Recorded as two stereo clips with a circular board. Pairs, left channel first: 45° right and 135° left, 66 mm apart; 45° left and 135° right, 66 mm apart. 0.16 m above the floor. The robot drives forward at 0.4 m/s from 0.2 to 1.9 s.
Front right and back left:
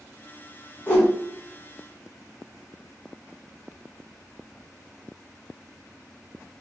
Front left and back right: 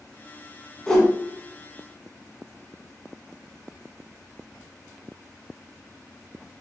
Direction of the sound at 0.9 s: 25° right.